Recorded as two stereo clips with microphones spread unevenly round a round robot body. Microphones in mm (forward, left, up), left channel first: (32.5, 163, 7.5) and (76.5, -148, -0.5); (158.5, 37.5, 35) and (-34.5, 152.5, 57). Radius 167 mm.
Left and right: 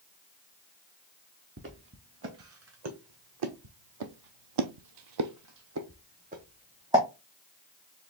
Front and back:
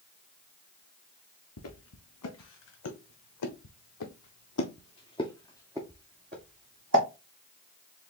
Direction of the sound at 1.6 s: 30° right.